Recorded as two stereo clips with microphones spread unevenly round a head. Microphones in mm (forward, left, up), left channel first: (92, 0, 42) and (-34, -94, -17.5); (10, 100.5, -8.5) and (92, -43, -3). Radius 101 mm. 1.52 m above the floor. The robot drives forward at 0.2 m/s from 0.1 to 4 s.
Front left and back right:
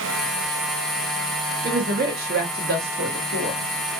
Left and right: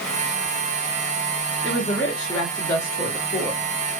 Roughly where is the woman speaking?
Behind right.